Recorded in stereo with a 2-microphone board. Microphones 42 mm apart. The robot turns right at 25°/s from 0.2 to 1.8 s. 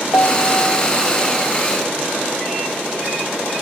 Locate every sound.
0.1 s a piano: 95° left; by 1.5 s 130° left